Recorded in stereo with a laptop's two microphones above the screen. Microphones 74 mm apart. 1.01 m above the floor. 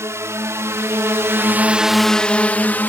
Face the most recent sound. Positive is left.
turn(degrees=25)  # may be behind; listen again after turning